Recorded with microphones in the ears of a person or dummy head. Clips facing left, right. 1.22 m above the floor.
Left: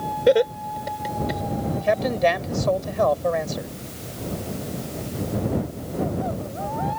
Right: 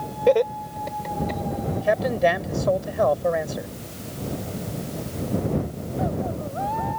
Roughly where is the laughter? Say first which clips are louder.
Left 1 dB; centre.